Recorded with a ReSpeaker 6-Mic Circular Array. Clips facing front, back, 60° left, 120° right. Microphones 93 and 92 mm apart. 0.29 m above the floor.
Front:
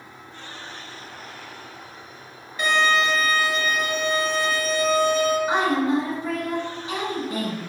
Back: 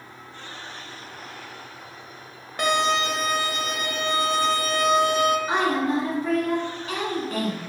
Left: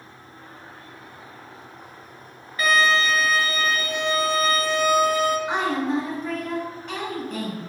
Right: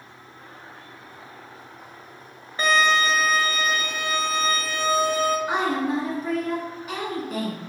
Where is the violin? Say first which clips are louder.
Front 2 dB, even; 175° right, 0.6 m.